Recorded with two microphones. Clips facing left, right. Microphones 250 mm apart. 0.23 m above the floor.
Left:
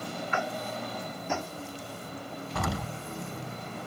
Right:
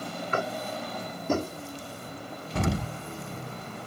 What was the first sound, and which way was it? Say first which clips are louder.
Tapping: right 4 dB; 45° right (ahead or behind).